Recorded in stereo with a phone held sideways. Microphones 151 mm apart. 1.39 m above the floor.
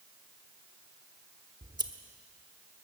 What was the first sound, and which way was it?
Scissors, 30° right (ahead or behind).